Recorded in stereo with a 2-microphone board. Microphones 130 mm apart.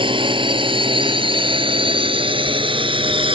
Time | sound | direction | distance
0.0 | a drone | 40° right (ahead or behind) | ?